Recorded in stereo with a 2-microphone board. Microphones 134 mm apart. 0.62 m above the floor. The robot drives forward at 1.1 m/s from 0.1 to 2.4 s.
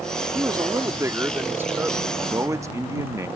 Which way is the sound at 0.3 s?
30° right (ahead or behind).